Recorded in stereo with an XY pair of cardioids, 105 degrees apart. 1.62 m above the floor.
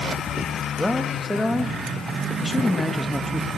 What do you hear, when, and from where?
0.8 s a man speaking: 5° left, 3 m